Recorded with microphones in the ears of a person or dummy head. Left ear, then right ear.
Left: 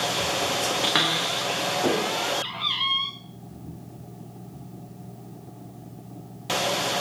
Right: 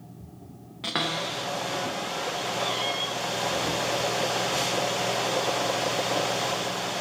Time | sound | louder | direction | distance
0.8 | a cupboard door | left 2 dB | 20° left (ahead or behind) | 0.7 m